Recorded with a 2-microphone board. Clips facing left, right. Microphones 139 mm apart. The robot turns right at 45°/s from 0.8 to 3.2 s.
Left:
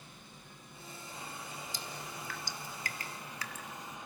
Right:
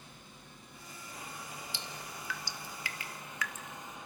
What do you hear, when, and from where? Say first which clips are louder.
1.7 s dripping: left 1 dB; 40° left (ahead or behind), 1.7 m; by 4.0 s 35° left (ahead or behind), 1.7 m